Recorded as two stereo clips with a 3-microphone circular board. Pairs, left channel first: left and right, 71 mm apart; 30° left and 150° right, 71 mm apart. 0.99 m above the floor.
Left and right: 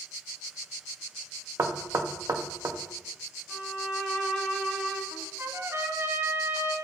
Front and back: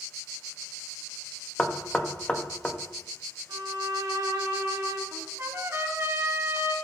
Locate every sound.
1.6 s knocking: 45° right, 0.8 m
3.5 s a violin: 170° right, 2.0 m
5.1 s a trumpet: 120° right, 1.1 m